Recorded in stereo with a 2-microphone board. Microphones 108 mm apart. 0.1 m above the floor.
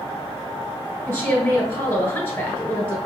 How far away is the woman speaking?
About 1.6 m.